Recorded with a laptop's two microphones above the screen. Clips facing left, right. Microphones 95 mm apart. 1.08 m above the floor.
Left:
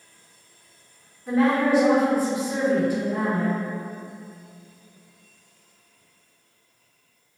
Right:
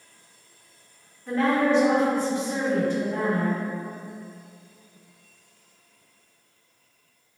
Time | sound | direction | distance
1.3 | a woman speaking | 10° left (ahead or behind) | 1.1 m